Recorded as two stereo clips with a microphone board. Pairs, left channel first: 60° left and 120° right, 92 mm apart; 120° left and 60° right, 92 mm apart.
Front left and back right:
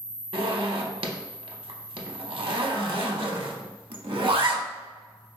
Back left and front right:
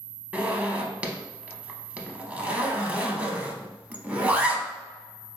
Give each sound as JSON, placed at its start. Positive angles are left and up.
{"t": 0.3, "sound": "a zipper", "azimuth_deg": -135, "distance_m": 0.6}